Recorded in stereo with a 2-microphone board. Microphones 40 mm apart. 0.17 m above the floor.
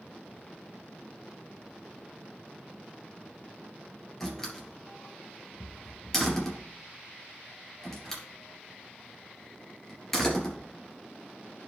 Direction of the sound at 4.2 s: 15° left (ahead or behind).